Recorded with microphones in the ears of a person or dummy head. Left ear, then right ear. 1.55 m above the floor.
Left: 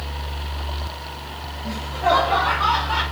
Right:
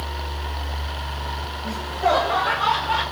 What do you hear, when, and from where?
1.6 s laughter: 60° right (ahead or behind), 0.9 m; by 3.0 s 40° right (ahead or behind), 2.0 m